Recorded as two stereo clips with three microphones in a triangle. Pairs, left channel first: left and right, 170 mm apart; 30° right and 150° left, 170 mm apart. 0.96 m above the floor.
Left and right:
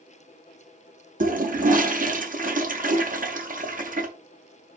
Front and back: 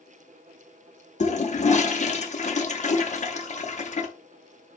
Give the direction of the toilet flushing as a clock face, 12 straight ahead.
2 o'clock.